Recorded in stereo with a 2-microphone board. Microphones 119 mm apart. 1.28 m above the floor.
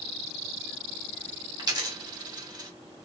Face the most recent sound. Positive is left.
turn(degrees=-35)  # may be behind; listen again after turning